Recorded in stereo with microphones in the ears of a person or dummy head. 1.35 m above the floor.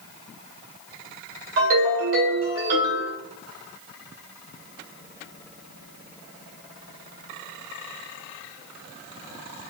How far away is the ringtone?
About 1.8 m.